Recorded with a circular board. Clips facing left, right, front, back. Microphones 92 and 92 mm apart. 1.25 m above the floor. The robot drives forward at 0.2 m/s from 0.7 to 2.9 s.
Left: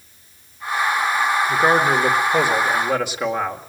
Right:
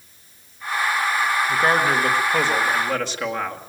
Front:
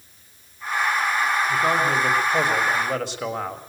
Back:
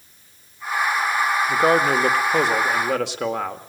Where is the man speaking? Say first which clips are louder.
Left 3 dB, back 3 dB; 165° left, 1.6 m; by 3.7 s 170° left, 1.9 m.